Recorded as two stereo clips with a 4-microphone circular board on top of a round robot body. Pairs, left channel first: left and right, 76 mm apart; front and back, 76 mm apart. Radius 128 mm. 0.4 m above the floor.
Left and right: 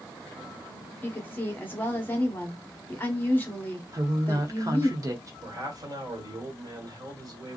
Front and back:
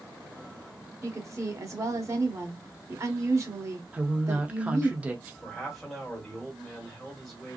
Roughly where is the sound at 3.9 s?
Right.